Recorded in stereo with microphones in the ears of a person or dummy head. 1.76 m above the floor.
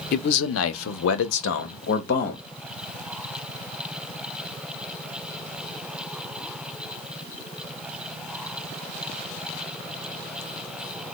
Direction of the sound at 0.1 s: 50° left (ahead or behind).